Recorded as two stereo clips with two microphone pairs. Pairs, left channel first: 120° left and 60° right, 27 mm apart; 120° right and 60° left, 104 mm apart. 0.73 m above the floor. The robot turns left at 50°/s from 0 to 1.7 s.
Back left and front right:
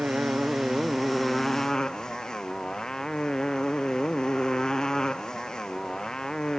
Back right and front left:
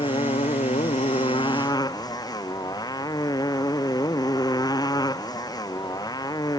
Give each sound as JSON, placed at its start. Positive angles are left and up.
{"t": 0.0, "sound": "a motorcycle", "azimuth_deg": -90}